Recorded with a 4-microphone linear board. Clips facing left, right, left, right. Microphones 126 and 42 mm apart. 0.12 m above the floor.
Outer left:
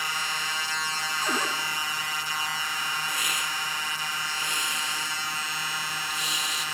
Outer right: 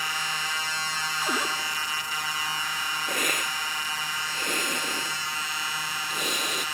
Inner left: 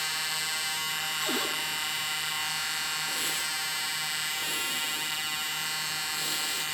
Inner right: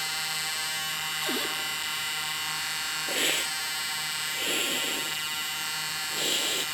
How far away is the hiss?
About 0.7 m.